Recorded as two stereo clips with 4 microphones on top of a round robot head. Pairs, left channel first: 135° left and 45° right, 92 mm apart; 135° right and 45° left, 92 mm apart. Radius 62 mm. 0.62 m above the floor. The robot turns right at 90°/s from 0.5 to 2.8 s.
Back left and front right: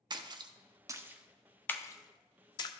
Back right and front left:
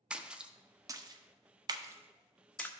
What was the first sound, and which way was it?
A splash, 35° right.